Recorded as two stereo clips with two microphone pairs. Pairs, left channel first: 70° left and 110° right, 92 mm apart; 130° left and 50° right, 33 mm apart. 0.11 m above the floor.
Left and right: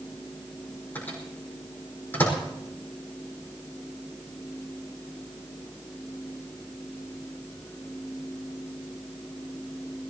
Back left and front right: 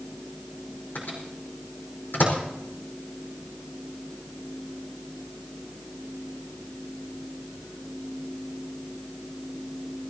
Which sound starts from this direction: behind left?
A microwave, at 0.9 s.